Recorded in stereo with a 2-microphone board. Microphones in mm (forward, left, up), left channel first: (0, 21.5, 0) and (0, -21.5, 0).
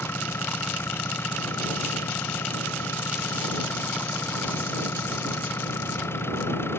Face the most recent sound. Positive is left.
turn(degrees=65)  # may be behind; listen again after turning